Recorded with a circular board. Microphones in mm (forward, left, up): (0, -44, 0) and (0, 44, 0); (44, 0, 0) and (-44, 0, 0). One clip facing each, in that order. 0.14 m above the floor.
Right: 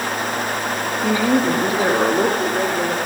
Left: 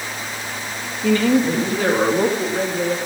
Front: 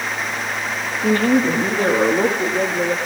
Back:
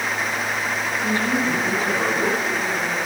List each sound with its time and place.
1.0 s a woman speaking: 20° right, 3 m; by 3.0 s 15° right, 5 m